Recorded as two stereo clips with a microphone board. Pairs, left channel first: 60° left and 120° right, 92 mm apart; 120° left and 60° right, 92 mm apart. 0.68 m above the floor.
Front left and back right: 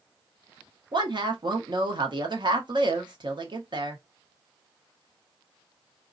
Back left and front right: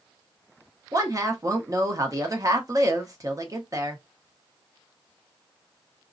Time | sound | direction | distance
0.9 | a woman speaking | 105° right | 0.8 m